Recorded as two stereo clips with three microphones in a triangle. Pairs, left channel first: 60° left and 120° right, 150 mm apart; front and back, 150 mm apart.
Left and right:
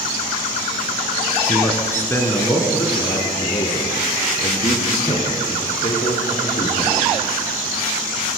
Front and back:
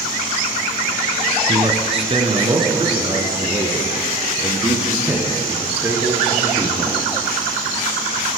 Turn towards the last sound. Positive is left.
turn(degrees=100)